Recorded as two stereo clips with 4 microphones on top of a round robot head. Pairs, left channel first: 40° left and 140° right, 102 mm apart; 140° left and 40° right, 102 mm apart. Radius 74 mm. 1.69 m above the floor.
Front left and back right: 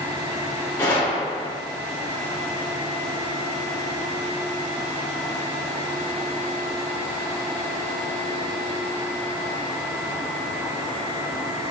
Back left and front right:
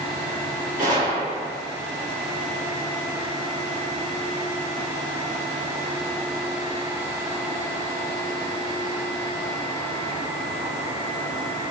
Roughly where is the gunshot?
Ahead right.